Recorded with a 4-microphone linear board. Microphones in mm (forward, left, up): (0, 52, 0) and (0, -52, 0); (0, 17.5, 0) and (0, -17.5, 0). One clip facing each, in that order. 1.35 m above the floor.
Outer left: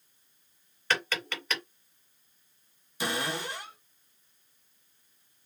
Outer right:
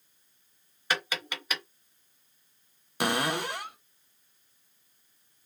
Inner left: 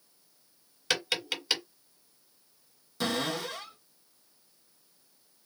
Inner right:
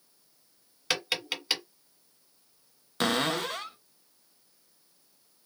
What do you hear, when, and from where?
0.9 s tapping: 10° right (ahead or behind), 1.9 m
3.0 s a cupboard door: 60° right (ahead or behind), 0.9 m